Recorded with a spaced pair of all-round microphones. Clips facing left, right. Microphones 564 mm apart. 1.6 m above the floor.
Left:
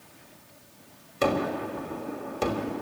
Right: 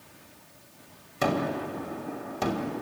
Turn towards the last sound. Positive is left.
turn(degrees=-10)  # may be behind; listen again after turning